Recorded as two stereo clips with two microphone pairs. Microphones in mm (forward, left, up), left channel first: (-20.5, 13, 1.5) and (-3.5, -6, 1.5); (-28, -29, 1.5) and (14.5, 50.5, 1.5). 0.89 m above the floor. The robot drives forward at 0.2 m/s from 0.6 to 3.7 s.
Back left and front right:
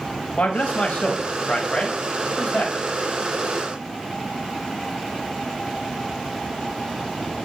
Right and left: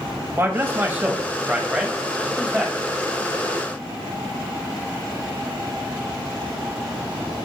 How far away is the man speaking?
About 0.7 m.